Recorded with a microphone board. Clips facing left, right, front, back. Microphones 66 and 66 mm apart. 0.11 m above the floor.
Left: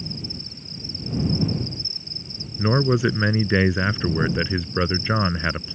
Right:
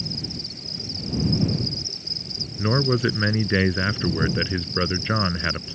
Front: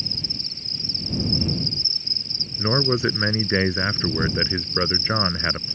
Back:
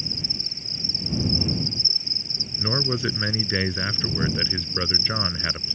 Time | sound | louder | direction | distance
0.0 | an insect | right 1 dB, even | 105° right | ?
2.6 | a man speaking | left 2 dB, front 5 dB | 20° left | ?